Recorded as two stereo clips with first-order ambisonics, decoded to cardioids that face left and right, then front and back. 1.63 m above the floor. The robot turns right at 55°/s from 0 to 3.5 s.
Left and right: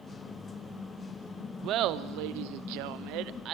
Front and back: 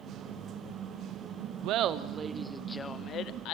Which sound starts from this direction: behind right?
Laughter, at 1.6 s.